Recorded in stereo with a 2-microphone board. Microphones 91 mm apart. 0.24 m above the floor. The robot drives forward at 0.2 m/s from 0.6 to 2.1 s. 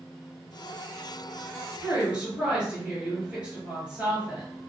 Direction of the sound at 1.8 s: 15° right (ahead or behind).